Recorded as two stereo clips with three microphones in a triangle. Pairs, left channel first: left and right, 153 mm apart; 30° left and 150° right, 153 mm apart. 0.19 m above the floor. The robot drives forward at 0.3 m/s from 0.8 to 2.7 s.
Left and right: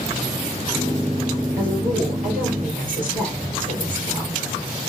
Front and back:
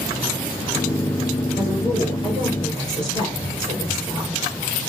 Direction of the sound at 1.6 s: 95° right.